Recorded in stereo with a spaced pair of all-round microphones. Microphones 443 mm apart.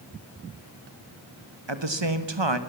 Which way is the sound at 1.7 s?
75° right (ahead or behind).